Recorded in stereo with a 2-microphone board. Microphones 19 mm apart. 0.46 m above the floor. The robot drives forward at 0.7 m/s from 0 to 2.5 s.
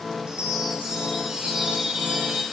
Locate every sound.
0.3 s a chime: 50° right (ahead or behind), 8.5 m; by 2.4 s 60° right (ahead or behind), 7.5 m